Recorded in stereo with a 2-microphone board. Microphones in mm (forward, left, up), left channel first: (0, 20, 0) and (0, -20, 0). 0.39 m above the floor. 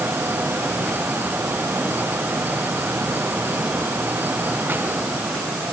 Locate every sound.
Only background noise.